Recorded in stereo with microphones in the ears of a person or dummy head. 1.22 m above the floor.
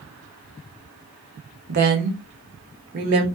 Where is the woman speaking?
50° right (ahead or behind), 0.8 m.